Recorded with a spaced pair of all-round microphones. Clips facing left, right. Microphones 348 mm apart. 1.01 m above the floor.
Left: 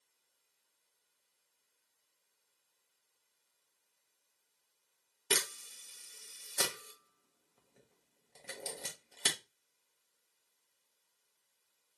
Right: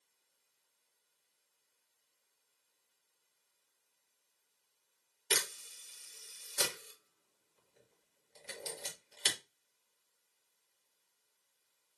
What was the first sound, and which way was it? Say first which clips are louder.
A camera shutter: left 2 dB; 60° left (ahead or behind).